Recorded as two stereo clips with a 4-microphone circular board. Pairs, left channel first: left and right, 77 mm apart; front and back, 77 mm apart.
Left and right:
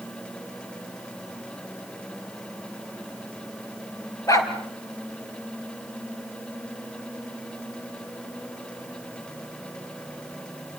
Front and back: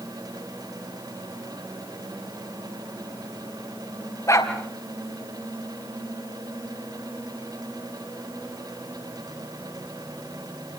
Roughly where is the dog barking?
Ahead left.